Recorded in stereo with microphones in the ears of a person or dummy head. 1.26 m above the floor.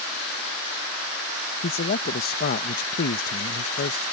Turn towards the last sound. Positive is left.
turn(degrees=50)  # may be behind; listen again after turning